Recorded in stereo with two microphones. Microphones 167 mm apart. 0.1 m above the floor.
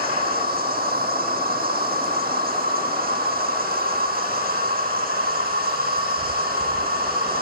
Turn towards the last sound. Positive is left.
turn(degrees=-75)  # may be behind; listen again after turning